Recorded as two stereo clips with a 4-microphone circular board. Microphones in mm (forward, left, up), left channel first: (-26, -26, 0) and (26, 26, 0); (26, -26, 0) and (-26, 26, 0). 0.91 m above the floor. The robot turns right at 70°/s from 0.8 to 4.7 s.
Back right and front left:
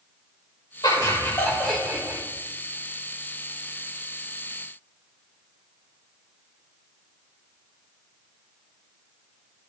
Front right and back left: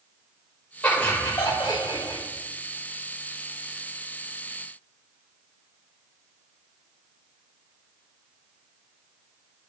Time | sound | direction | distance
0.8 | laughter | 120° right | 3 m